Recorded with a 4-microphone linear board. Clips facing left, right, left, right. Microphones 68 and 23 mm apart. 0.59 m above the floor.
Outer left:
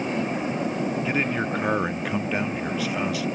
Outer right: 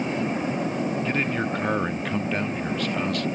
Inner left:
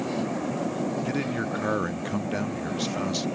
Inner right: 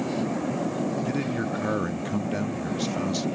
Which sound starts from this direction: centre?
A man speaking, at 1.1 s.